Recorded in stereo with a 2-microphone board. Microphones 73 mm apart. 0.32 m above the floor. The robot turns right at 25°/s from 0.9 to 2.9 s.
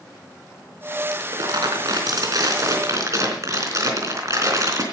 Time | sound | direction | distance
1.1 | crumpling | 95° right | 3.5 m